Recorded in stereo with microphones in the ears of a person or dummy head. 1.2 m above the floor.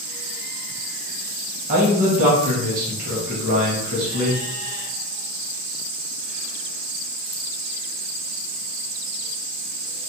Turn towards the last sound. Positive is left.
turn(degrees=-45)  # may be behind; listen again after turning